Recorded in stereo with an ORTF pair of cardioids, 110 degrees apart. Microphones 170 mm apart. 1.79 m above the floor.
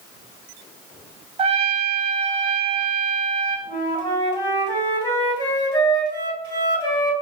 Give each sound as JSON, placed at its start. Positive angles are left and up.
{"t": 1.4, "sound": "a trumpet", "azimuth_deg": -35, "distance_m": 1.1}
{"t": 3.7, "sound": "a flute", "azimuth_deg": 25, "distance_m": 2.5}